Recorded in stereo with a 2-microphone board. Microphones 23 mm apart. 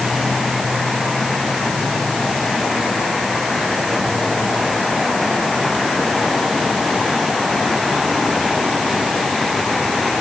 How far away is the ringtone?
No ringtone in this recording.